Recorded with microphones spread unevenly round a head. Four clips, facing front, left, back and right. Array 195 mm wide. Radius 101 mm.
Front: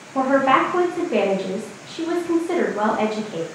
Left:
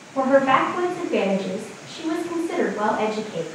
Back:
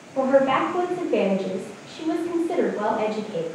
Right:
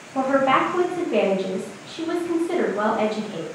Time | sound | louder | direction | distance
0.1 | a woman speaking | left 2 dB, front 2 dB | 20° right | 1.0 m